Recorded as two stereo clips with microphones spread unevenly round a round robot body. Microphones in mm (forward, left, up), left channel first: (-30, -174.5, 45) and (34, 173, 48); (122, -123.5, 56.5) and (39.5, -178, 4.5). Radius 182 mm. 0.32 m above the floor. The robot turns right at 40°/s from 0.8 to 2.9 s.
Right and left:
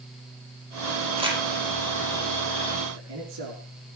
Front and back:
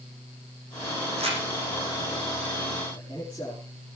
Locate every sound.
1.2 s crumpling: 155° left, 5 m; by 1.4 s 165° left, 5 m
2.9 s a man speaking: 125° left, 5 m